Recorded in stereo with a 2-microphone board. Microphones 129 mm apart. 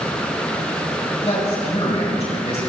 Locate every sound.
1.2 s a man speaking: 55° left (ahead or behind), 2.5 m